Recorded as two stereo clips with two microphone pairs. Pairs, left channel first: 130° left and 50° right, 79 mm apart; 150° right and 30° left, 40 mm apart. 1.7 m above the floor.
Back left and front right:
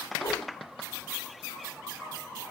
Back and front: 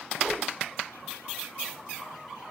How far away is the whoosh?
About 6 m.